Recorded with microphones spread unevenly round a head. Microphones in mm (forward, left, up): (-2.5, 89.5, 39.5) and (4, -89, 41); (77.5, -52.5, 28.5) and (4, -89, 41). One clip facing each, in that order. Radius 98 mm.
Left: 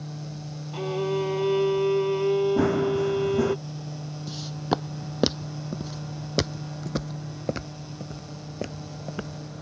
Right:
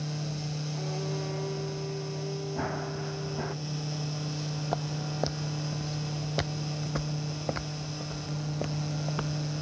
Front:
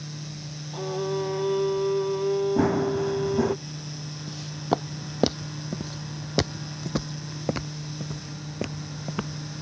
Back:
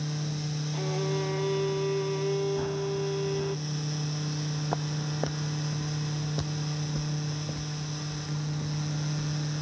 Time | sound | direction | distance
0.7 | a violin | 100° left | ?
2.6 | running footsteps | 55° left | ?
4.3 | footsteps | 95° left | ?